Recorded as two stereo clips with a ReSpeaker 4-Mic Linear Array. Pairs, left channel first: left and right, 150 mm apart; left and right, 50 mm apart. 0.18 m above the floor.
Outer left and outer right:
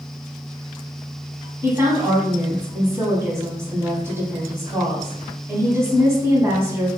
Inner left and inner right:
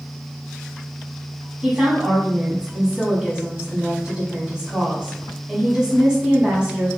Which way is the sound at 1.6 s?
20° right (ahead or behind).